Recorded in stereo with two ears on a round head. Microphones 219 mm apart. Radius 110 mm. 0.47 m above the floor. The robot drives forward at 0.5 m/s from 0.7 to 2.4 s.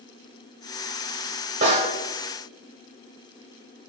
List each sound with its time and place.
1.6 s a snare drum: 30° right (ahead or behind), 1.0 m; by 1.9 s 25° right (ahead or behind), 1.1 m